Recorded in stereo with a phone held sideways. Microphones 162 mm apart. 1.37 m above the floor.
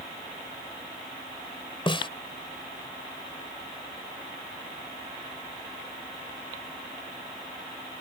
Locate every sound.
1.9 s a snare drum: 35° left (ahead or behind)